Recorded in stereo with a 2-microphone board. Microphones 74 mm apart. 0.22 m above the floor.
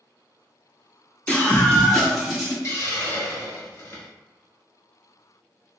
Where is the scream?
25° left (ahead or behind), 1.7 m; by 2.5 s 10° right (ahead or behind), 1.6 m.